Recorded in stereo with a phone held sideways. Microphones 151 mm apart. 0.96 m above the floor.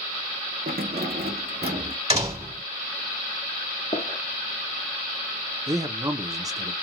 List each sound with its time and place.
0.7 s keys jangling: 70° right (ahead or behind), 0.5 m
2.1 s a door slam: 40° right (ahead or behind), 1.4 m
3.9 s a gunshot: 50° left (ahead or behind), 0.7 m
5.7 s a man speaking: 20° right (ahead or behind), 0.5 m